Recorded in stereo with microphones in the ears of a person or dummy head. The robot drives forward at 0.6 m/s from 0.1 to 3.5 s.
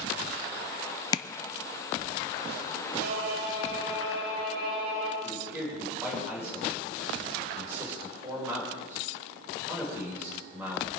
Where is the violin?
55° right (ahead or behind), 8 m; by 5.1 s 50° right (ahead or behind), 8 m.